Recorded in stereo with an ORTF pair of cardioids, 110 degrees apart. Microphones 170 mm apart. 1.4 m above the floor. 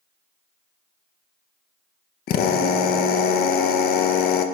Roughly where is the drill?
Ahead left.